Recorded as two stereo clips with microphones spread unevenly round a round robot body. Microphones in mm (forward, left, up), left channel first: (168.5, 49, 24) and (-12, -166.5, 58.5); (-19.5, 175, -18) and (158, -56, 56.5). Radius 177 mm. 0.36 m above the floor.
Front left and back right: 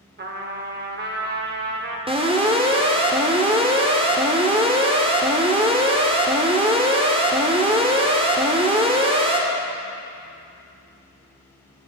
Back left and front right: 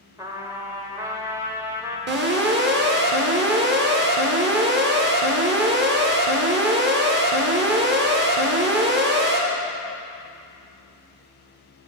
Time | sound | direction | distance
0.2 | a trumpet | 150° right | 1.5 m
2.1 | an alarm | 70° right | 2.0 m